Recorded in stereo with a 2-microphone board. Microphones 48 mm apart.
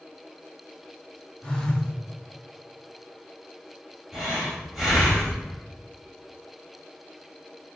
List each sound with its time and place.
1.4 s a phone buzzing: 15° left (ahead or behind), 0.8 m
4.1 s breathing: 5° right (ahead or behind), 1.3 m